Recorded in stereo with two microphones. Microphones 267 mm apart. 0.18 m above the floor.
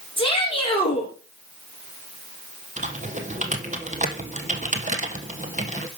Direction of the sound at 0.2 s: 20° left (ahead or behind).